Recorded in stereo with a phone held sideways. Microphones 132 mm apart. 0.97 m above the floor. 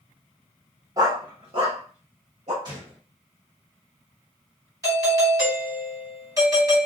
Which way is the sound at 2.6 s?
30° right (ahead or behind).